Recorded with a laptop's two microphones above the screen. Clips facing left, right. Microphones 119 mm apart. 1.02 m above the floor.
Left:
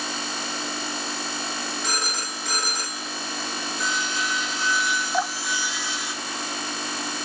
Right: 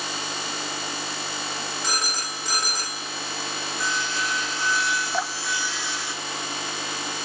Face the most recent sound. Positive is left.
turn(degrees=0)  # may be behind; listen again after turning